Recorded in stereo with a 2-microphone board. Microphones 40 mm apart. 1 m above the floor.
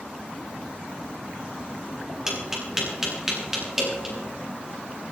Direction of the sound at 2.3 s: 10° right (ahead or behind).